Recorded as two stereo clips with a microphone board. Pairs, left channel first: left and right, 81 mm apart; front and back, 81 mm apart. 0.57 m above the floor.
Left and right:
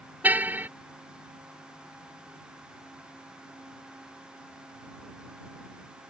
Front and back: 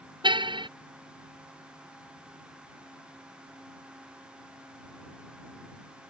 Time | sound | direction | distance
0.2 | a car horn | 160° right | ?